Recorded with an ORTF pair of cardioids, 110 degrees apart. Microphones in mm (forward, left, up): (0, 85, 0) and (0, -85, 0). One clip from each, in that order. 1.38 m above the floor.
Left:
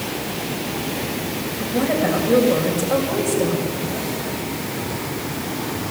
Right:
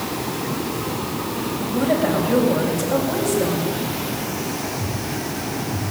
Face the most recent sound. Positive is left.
turn(degrees=20)